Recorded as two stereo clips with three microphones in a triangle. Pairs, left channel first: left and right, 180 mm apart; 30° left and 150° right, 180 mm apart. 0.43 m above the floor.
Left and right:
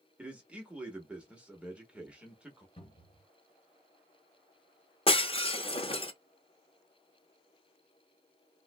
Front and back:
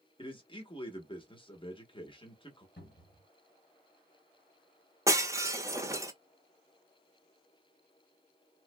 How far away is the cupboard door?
About 2 m.